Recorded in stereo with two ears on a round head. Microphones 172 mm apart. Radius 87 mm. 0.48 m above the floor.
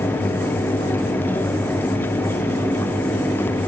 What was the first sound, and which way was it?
Only background noise.